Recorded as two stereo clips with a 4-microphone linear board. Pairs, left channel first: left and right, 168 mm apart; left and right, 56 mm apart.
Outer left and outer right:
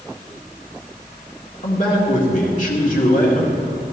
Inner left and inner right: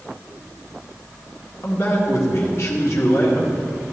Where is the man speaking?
50° left (ahead or behind), 1.9 m.